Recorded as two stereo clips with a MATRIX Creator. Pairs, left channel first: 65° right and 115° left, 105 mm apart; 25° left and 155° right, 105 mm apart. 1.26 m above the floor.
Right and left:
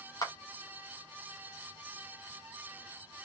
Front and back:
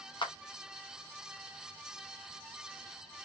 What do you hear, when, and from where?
0.2 s a clap: 15° right, 0.6 m